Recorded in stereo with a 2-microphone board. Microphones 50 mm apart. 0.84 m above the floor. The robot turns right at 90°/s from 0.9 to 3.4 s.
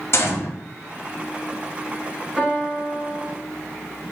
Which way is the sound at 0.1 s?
55° left (ahead or behind).